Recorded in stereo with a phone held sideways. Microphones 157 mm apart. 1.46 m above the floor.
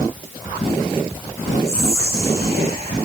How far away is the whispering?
About 3.5 m.